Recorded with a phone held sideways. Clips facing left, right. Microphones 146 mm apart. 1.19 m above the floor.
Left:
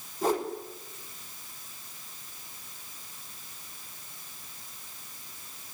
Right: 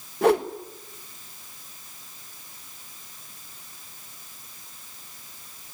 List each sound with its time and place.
0.2 s a whoosh: 70° right (ahead or behind), 1.5 m